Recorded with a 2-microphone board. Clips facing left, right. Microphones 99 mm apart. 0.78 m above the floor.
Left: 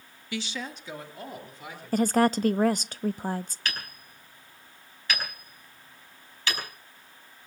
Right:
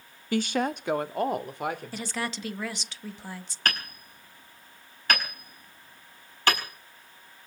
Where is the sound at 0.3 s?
45° right (ahead or behind), 0.6 m; by 2.4 s 60° right (ahead or behind), 3 m.